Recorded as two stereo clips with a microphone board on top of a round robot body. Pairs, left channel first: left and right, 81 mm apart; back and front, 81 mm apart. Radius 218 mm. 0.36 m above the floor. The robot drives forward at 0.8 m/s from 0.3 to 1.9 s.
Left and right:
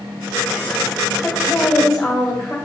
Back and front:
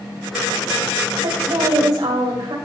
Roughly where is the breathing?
I don't hear breathing.